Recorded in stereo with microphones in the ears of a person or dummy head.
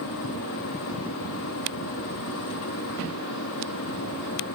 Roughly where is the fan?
Left.